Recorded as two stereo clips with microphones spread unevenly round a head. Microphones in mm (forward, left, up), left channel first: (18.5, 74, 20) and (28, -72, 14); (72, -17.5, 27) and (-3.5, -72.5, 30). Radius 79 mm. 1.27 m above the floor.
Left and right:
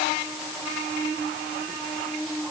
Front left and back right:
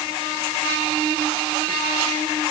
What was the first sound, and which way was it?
Only background noise.